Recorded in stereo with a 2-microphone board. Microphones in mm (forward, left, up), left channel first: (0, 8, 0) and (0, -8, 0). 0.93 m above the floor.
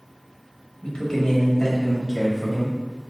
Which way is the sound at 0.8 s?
55° left (ahead or behind).